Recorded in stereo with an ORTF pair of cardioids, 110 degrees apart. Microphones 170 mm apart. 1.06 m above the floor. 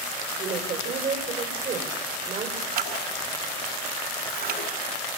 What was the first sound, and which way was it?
A woman speaking, 55° right.